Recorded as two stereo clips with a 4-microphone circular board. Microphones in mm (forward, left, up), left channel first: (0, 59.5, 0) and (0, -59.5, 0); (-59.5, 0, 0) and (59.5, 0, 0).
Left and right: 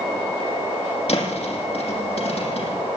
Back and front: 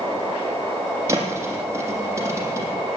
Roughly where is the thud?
Ahead left.